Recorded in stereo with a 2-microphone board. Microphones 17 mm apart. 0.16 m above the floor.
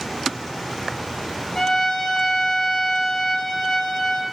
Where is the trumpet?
45° left (ahead or behind), 3 m.